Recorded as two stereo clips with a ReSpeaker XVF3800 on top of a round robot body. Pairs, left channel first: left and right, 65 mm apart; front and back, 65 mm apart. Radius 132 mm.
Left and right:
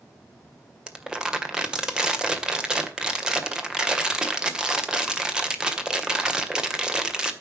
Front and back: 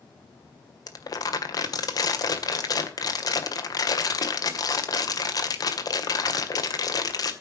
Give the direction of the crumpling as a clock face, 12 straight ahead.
12 o'clock.